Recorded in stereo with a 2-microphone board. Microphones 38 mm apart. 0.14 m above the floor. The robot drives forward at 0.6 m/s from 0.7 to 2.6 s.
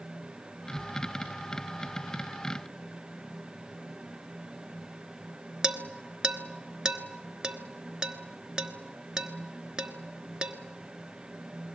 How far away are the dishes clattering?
About 1.3 m.